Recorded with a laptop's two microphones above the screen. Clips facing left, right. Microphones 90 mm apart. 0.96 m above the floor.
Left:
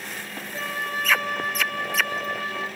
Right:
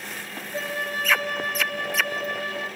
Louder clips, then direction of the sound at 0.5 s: Right 1 dB; 60° right (ahead or behind).